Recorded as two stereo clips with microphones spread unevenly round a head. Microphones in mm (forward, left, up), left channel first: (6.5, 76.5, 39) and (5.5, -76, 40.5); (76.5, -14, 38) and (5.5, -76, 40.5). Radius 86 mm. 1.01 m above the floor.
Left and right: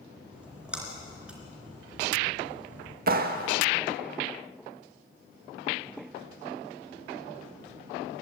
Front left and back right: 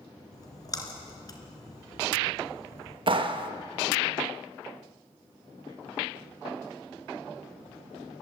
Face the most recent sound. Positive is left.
turn(degrees=-110)